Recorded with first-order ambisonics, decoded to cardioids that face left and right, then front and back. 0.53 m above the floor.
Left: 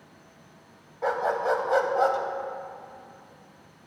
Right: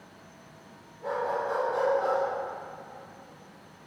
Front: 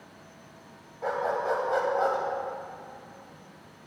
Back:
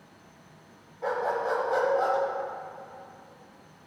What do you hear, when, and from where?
1.0 s a dog barking: 85° left, 1.2 m